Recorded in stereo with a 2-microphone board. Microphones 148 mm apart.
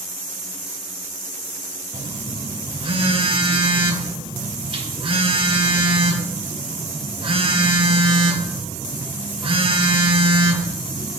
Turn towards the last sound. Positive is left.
turn(degrees=-40)  # may be behind; listen again after turning